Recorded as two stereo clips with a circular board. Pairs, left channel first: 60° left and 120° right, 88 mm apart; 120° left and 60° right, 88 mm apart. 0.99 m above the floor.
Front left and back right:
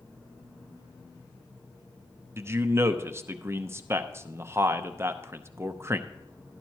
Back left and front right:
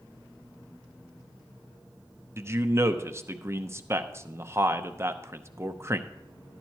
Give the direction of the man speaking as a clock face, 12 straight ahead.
3 o'clock.